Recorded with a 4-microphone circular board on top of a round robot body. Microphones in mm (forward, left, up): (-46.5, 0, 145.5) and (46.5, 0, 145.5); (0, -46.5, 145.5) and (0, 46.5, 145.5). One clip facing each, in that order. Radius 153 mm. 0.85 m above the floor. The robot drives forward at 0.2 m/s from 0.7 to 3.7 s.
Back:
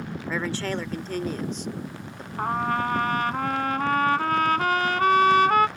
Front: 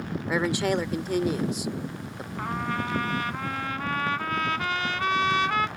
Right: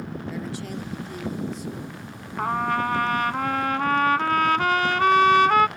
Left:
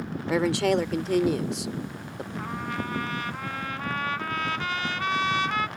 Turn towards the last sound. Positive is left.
turn(degrees=-135)